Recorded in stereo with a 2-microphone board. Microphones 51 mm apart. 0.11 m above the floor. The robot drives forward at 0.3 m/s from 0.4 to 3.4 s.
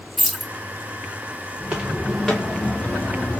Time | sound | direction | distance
0.2 | keys jangling | centre (ahead or behind) | 1.9 m
1.6 | footsteps | 20° right (ahead or behind) | 1.0 m